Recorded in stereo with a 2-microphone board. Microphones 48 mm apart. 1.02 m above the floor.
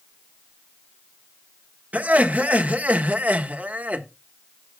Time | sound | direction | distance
1.9 | laughter | 35° right (ahead or behind) | 1.2 m